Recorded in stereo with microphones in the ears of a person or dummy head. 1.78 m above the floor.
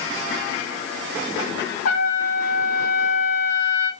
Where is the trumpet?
65° left (ahead or behind), 4 m.